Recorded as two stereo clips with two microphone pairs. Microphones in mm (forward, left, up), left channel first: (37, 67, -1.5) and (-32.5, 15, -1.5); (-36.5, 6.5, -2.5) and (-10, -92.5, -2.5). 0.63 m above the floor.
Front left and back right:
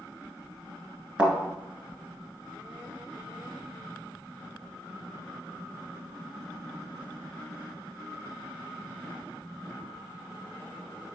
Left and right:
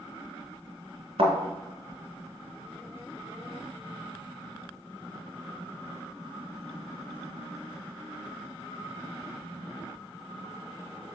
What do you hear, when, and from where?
1.2 s a thud: 70° right, 1.6 m